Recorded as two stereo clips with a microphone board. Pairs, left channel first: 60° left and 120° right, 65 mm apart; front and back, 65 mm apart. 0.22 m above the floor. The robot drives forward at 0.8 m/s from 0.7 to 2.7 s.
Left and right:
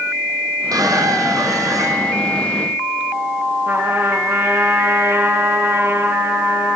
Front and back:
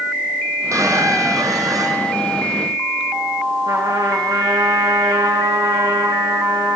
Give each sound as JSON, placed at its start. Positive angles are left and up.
{"t": 0.7, "sound": "a squeak", "azimuth_deg": -145, "distance_m": 2.5}
{"t": 3.7, "sound": "a trumpet", "azimuth_deg": -175, "distance_m": 5.5}